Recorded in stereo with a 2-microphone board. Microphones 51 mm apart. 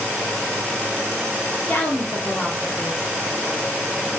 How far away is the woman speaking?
About 0.6 m.